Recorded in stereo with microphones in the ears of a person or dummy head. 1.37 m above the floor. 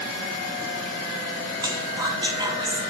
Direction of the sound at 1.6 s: 15° right (ahead or behind).